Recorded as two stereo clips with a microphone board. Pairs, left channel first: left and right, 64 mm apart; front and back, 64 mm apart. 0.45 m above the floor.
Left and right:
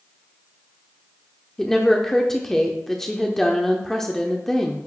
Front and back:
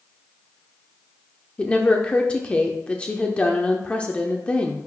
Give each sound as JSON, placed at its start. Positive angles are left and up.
{"t": 1.6, "sound": "a woman speaking", "azimuth_deg": 20, "distance_m": 0.7}